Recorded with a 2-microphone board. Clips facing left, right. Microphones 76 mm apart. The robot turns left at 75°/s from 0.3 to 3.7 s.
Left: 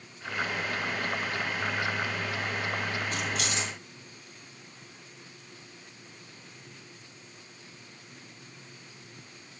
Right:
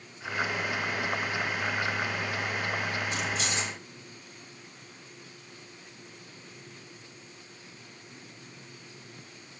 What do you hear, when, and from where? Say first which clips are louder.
3.1 s keys jangling: even; 45° left (ahead or behind), 2 m; by 3.7 s 85° left, 2 m